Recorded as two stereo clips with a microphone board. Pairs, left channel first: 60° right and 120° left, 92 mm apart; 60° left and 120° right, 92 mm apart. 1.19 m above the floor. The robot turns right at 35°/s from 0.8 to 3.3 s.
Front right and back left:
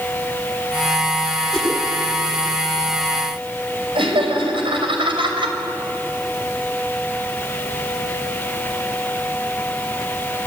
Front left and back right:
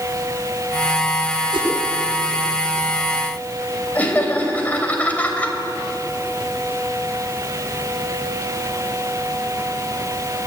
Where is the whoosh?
150° right, 9 m; by 1.7 s 145° right, 9 m.